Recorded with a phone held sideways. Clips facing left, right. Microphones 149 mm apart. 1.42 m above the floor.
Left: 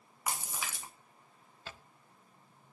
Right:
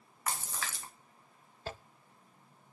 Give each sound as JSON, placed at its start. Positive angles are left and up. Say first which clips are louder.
{"t": 0.3, "sound": "a splash", "louder": "even", "side_deg": 15, "distance_m": 1.6}
{"t": 1.7, "sound": "a zipper", "louder": "right 8 dB", "side_deg": -40, "distance_m": 0.8}